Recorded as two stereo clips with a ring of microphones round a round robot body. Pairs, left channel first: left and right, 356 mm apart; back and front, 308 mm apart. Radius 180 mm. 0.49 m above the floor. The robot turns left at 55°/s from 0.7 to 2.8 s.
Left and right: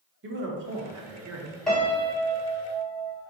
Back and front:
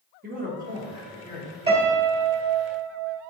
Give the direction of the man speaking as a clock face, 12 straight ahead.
2 o'clock.